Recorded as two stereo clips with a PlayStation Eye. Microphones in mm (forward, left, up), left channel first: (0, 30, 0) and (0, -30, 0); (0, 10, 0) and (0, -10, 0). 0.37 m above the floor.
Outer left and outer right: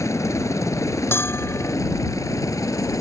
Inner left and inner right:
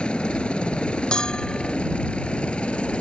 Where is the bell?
40° left (ahead or behind).